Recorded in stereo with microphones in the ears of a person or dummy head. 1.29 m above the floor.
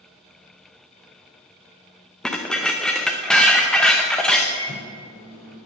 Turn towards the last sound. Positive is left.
turn(degrees=35)  # may be behind; listen again after turning